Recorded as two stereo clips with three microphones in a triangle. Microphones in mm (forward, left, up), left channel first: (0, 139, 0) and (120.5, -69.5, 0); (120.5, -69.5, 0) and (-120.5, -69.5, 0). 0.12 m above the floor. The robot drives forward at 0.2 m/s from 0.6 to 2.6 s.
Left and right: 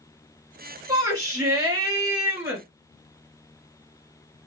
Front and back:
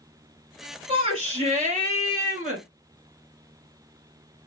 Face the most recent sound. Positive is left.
turn(degrees=-140)